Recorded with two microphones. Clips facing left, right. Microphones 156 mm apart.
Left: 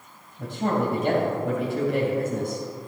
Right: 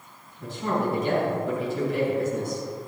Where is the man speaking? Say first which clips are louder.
Left 2 dB; 65° left (ahead or behind), 3 m.